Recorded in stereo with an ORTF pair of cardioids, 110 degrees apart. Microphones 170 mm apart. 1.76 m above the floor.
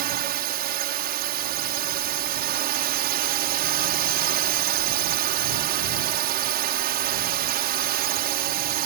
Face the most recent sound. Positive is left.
turn(degrees=-70)